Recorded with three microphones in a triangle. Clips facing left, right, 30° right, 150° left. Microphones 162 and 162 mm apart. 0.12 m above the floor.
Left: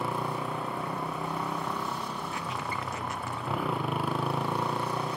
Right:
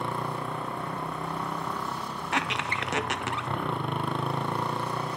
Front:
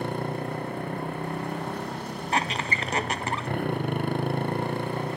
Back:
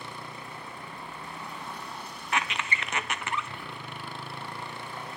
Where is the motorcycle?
5° left.